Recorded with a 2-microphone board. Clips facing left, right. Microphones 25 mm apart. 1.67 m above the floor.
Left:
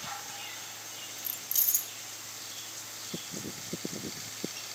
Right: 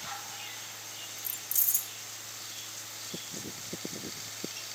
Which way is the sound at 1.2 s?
35° left (ahead or behind).